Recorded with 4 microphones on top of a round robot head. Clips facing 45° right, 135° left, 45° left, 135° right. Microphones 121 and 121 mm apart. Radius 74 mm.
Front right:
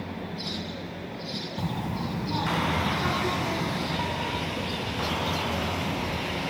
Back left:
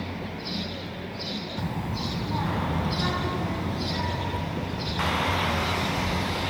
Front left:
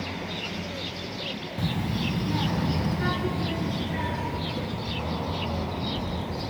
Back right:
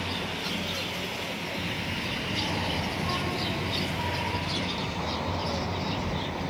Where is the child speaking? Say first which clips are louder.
Front right 2 dB, front left 5 dB; 30° left, 1.9 m; by 6.5 s 55° left, 7.5 m.